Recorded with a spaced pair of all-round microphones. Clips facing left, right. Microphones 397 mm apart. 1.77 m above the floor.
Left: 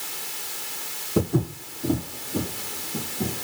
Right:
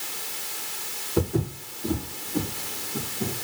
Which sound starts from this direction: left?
Footsteps, at 1.2 s.